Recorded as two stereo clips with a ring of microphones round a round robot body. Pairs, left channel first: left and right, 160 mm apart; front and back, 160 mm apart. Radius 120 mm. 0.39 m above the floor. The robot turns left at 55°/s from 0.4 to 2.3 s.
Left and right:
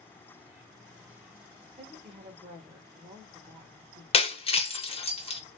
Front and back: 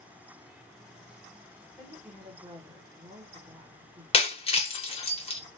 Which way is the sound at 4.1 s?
45° left.